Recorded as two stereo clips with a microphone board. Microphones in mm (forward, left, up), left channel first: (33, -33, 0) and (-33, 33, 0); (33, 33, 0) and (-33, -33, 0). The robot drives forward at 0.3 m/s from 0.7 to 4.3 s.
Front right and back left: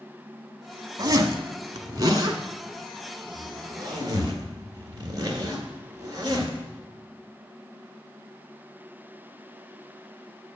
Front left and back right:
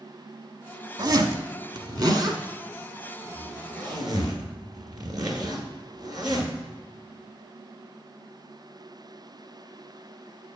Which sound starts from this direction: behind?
A zipper, at 1.0 s.